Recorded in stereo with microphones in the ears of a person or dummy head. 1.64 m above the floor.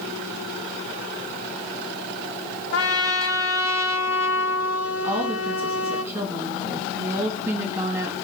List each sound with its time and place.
2.7 s a trumpet: 85° left, 1.0 m
5.0 s a woman speaking: 15° right (ahead or behind), 2.0 m